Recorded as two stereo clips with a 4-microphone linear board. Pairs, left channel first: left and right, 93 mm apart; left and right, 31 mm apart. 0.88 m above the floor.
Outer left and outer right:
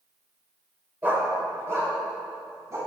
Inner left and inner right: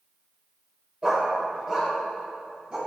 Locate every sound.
1.0 s a dog barking: 20° right (ahead or behind), 1.5 m; by 2.8 s 35° right (ahead or behind), 3.5 m